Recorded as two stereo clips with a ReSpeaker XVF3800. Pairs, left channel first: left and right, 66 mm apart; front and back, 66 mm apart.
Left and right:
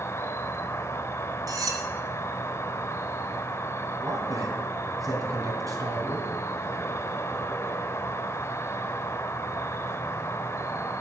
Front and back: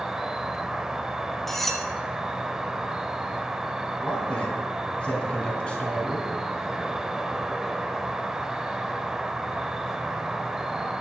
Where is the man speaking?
75° right, 3.5 m.